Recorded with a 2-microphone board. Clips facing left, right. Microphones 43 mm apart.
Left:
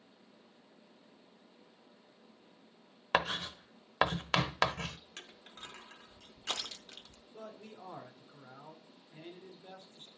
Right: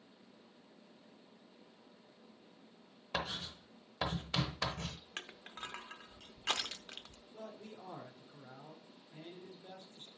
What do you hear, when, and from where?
3.1 s writing: 65° left (ahead or behind), 0.8 m
5.2 s crushing: 40° right (ahead or behind), 0.8 m
7.3 s a man speaking: 30° left (ahead or behind), 2 m